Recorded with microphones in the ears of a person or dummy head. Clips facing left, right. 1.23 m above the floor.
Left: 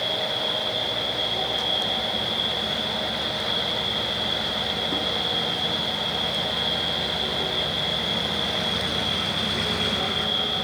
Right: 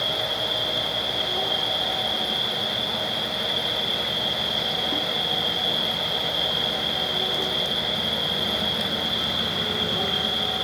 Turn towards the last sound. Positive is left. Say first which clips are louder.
# left 1 dB
turn(degrees=-80)